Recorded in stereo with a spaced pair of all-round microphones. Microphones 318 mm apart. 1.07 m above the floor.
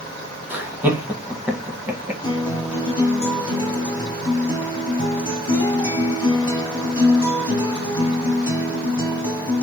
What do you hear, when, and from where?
0.5 s laughter: 5° right (ahead or behind), 0.9 m
2.2 s a guitar: 15° left (ahead or behind), 1.8 m